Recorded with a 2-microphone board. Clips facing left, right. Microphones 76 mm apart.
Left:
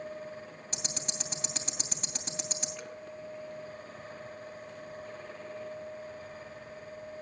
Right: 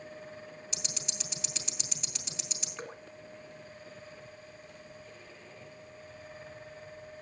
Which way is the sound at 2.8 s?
40° right (ahead or behind).